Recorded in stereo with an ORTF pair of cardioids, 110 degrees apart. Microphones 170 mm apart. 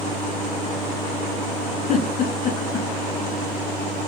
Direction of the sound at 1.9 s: 50° left.